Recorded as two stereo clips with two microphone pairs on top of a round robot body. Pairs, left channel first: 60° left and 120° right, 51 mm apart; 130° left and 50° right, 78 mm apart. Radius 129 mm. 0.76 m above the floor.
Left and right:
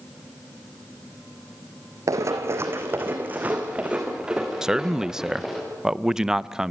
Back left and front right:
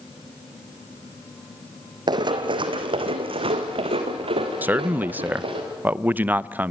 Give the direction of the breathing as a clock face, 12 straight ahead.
No breathing in this recording.